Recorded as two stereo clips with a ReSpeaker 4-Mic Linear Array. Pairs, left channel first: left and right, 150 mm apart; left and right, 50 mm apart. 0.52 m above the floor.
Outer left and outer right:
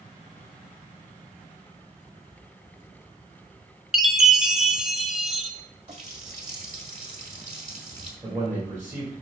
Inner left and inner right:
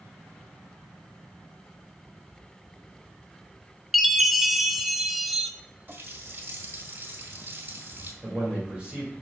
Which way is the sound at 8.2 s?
20° right (ahead or behind).